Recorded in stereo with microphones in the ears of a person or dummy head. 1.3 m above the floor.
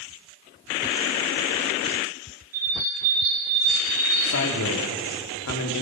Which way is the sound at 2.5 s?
45° right (ahead or behind).